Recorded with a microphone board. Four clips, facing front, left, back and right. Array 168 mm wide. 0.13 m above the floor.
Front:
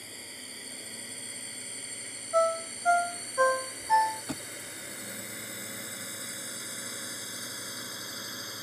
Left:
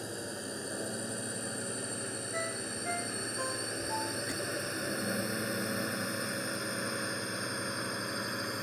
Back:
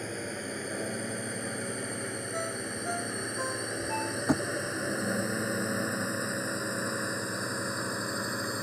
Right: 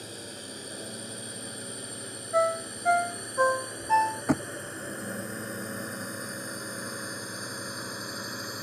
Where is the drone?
165° left; by 8.6 s 170° left.